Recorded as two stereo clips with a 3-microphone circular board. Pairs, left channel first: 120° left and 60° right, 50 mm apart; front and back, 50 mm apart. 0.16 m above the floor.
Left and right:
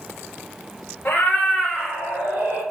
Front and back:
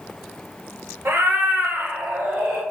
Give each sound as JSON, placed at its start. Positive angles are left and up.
{"t": 1.1, "sound": "a cat meowing", "azimuth_deg": 160, "distance_m": 1.2}